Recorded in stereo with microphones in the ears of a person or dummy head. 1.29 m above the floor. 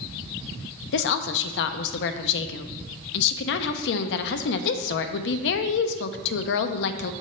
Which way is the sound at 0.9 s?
65° left (ahead or behind).